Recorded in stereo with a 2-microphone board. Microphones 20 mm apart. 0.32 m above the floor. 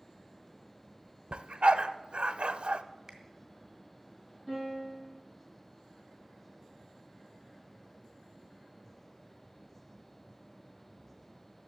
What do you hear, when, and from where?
1.3 s a dog barking: 65° right (ahead or behind), 0.5 m
3.1 s a finger snap: 20° right (ahead or behind), 1.8 m
4.5 s a piano: 10° left (ahead or behind), 6 m